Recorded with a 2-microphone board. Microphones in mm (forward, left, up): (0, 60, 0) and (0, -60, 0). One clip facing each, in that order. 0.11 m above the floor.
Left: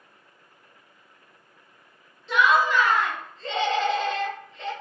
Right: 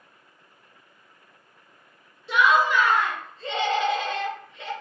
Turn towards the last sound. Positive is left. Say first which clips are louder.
# even
turn(degrees=-10)  # may be behind; listen again after turning